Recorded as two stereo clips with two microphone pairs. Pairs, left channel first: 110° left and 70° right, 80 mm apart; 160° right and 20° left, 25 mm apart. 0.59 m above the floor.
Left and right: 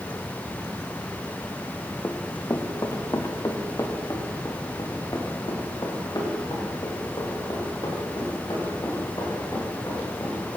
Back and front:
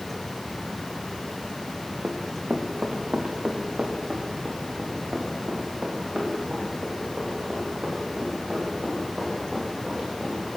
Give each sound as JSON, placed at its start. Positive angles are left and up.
{"t": 2.0, "sound": "running footsteps", "azimuth_deg": 55, "distance_m": 2.0}